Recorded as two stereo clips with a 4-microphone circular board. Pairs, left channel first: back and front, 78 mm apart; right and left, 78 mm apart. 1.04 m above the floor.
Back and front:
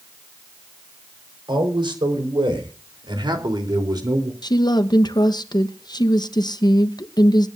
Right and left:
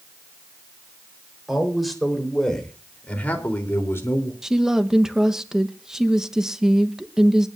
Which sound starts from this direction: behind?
A woman speaking, at 4.4 s.